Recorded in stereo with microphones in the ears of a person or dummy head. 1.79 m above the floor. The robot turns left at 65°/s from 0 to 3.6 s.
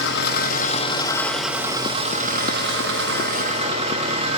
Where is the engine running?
90° left, 1.0 m; by 4.4 s 145° right, 1.0 m.